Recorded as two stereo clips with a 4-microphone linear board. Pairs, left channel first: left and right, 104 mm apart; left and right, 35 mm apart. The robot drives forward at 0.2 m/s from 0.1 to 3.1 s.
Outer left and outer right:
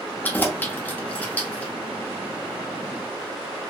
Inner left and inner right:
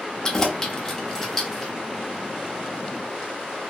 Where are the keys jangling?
15° left (ahead or behind), 0.6 m; by 1.7 s 10° left (ahead or behind), 0.9 m.